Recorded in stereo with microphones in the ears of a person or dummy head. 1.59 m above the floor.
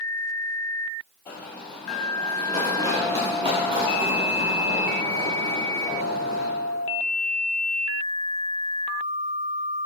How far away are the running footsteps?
About 2.5 m.